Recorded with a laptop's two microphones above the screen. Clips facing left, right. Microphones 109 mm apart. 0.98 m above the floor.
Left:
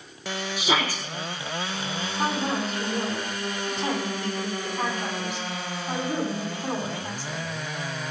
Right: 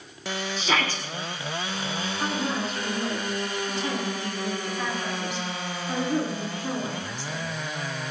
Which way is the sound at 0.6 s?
10° left (ahead or behind).